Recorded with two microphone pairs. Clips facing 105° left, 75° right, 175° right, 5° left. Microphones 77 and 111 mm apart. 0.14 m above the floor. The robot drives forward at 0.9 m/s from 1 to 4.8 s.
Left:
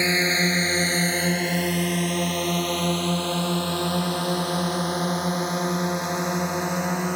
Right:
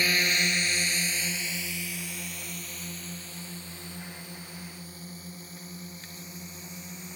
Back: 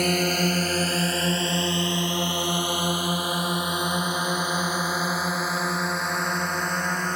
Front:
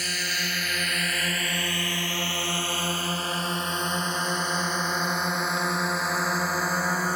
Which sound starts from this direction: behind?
A drone, at 0.0 s.